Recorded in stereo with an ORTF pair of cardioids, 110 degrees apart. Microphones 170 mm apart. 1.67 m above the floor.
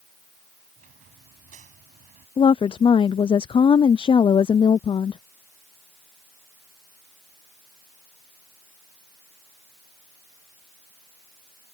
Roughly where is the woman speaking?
Ahead left.